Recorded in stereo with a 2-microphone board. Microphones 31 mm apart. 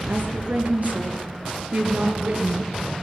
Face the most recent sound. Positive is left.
turn(degrees=-45)  # may be behind; listen again after turning